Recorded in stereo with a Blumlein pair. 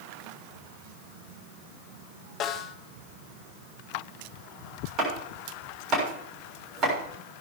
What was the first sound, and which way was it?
A snare drum, 35° left.